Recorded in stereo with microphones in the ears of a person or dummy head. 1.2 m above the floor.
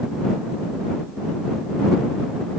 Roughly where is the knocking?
No knocking in this recording.